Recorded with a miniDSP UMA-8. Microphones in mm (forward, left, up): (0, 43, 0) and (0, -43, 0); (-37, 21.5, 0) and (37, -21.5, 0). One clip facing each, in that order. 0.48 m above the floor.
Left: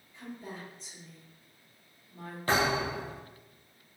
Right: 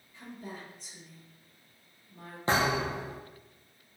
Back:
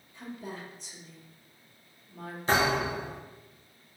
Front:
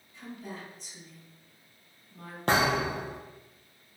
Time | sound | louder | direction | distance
0.1 | a woman speaking | left 1 dB, back 1 dB | straight behind | 1.3 m
2.5 | a thud | even, even | 25° right | 1.8 m